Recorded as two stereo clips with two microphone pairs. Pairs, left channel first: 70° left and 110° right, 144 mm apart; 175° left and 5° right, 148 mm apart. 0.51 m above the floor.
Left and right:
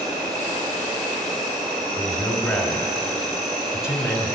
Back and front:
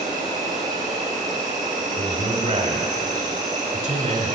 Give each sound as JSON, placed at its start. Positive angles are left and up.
{"t": 0.0, "sound": "an insect", "azimuth_deg": -60, "distance_m": 3.0}
{"t": 2.0, "sound": "a man speaking", "azimuth_deg": -20, "distance_m": 1.4}